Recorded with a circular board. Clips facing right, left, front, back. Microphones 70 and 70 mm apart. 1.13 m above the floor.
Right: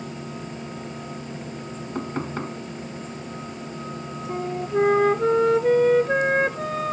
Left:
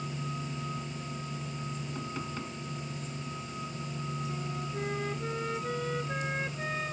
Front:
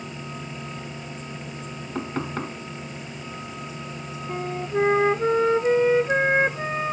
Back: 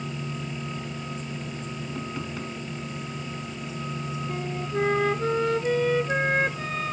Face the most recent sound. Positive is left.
turn(degrees=-65)